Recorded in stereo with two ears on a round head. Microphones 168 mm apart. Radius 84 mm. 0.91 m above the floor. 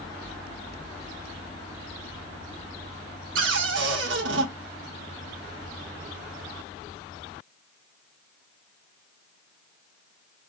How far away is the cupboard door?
About 1.2 m.